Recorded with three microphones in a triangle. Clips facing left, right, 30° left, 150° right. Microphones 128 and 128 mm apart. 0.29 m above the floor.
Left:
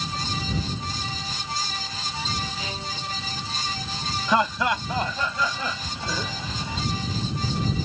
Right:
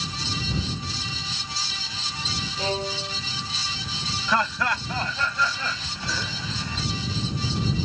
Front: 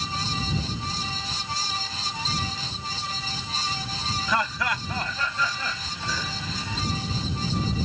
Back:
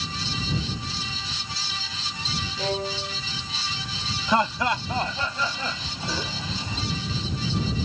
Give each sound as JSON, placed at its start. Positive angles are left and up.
{"t": 2.6, "sound": "a violin", "azimuth_deg": -140}
{"t": 4.3, "sound": "laughter", "azimuth_deg": 155}